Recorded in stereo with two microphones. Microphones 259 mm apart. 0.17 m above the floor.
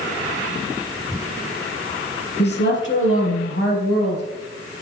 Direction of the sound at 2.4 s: 40° left (ahead or behind).